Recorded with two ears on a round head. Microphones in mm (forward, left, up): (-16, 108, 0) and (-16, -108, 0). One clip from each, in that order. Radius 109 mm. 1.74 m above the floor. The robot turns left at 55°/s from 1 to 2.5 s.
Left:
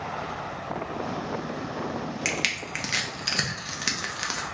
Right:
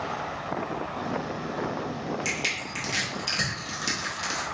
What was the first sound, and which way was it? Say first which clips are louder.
Crushing: left 3 dB; 70° left (ahead or behind).